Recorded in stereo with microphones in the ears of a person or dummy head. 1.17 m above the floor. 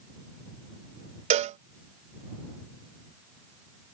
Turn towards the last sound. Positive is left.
turn(degrees=-30)  # may be behind; listen again after turning